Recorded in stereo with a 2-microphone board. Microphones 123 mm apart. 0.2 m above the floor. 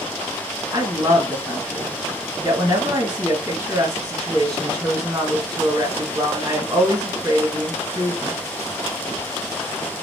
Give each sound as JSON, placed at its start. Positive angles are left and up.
{"t": 0.7, "sound": "a woman speaking", "side_deg": -25, "distance_m": 1.5}